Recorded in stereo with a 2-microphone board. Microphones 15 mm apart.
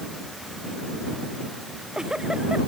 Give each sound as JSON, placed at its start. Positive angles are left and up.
{"t": 1.7, "sound": "a giggle", "side_deg": -55}